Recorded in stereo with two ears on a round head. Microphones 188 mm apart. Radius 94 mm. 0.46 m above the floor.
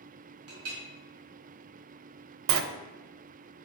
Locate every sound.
0.5 s a clink: 70° right (ahead or behind), 2.0 m
2.5 s a sliding door: 65° right (ahead or behind), 0.5 m